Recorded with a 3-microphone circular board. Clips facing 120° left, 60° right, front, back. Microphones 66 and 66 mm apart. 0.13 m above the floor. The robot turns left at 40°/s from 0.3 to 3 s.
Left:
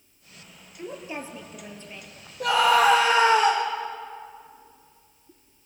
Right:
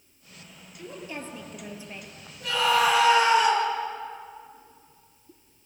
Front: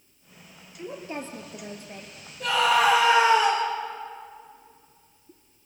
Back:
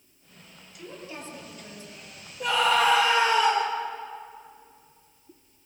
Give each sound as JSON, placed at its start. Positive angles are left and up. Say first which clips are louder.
{"t": 0.8, "sound": "a woman speaking", "louder": "left 3 dB, front 5 dB", "azimuth_deg": 60, "distance_m": 3.0}
{"t": 2.4, "sound": "a scream", "louder": "left 4 dB, front 1 dB", "azimuth_deg": 105, "distance_m": 5.0}